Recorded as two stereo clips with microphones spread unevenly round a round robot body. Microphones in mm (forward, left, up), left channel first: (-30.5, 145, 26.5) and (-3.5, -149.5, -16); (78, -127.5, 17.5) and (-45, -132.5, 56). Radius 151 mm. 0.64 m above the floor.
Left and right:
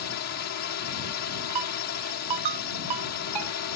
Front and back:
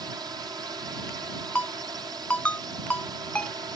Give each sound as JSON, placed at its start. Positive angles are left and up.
{"t": 0.0, "sound": "a drone", "azimuth_deg": 110}
{"t": 1.6, "sound": "a ringtone", "azimuth_deg": -80}